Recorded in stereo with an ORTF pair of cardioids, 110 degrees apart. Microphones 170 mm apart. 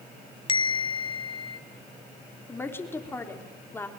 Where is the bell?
30° left, 1.4 m.